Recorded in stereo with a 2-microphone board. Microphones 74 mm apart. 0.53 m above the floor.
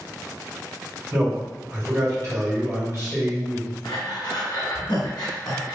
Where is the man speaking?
50° right (ahead or behind), 2.0 m.